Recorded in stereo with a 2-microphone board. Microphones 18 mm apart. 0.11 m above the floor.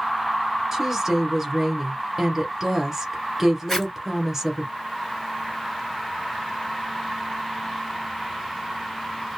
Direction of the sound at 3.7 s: 20° left (ahead or behind).